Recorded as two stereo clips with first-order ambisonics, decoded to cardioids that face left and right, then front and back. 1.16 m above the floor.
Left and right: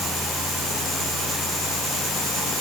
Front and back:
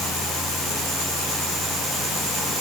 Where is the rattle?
No rattle in this recording.